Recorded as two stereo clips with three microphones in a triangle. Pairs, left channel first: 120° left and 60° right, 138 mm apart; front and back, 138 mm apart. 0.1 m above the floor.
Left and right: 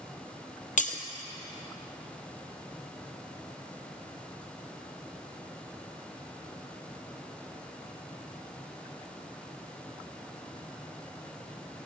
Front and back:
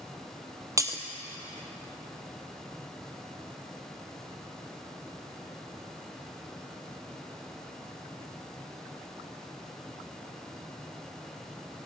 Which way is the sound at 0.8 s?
115° left.